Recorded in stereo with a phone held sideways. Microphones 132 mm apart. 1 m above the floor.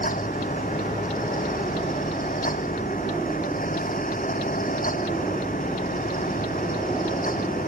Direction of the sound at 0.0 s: 90° left.